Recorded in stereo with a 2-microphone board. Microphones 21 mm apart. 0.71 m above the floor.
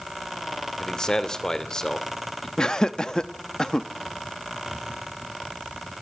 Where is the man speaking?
30° left (ahead or behind), 2 m.